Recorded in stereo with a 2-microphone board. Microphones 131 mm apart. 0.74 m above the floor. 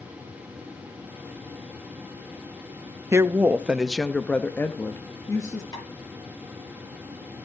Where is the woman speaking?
20° right (ahead or behind), 0.7 m; by 5.6 s 25° left (ahead or behind), 1.3 m.